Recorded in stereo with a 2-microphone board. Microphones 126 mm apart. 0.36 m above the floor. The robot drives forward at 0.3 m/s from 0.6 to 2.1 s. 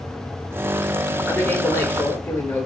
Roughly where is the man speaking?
Centre.